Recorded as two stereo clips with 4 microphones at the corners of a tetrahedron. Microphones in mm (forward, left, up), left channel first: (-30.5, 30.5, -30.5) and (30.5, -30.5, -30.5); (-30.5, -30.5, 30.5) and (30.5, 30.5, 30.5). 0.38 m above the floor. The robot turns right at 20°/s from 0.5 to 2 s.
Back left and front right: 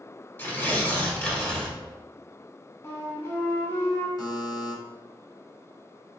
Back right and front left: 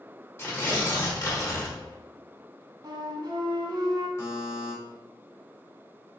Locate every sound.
0.4 s tearing paper: 175° right, 1.2 m; by 1.8 s 150° right, 1.2 m
2.8 s a flute: 75° left, 1.0 m
4.2 s a buzzer: 170° left, 1.4 m